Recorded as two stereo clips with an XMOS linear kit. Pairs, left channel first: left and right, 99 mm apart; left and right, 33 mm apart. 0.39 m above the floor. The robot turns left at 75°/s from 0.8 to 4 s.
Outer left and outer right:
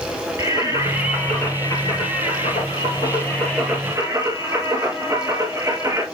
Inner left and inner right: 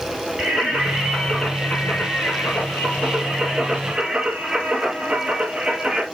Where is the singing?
150° right, 5.5 m; by 6.0 s 30° right, 5.5 m.